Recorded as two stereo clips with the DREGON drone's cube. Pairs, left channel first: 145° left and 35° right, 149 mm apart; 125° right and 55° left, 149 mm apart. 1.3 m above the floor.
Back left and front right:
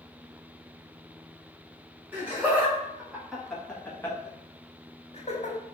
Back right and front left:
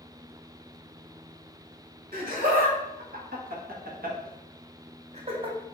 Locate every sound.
2.1 s laughter: 40° left, 1.8 m; by 5.6 s 110° left, 0.9 m